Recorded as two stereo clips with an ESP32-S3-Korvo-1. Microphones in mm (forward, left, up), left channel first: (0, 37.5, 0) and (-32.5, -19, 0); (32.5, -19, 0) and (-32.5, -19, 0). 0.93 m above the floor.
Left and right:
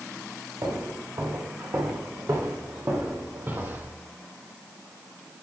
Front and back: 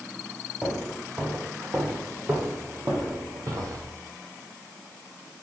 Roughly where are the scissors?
I don't hear scissors.